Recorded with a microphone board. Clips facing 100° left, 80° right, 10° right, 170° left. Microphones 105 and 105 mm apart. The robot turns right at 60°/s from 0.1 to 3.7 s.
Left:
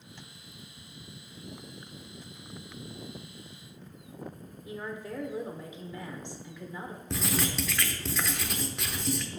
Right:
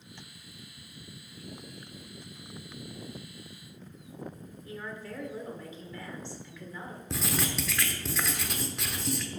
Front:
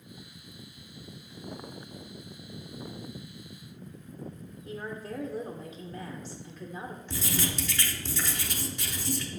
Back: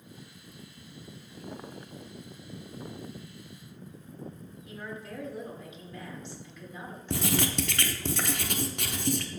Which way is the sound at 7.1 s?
170° right.